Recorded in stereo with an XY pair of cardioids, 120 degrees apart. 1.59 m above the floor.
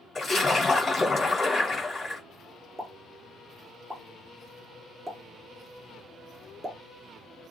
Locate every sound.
0.1 s a splash: 25° left, 1.3 m
2.8 s a pop: 15° right, 0.7 m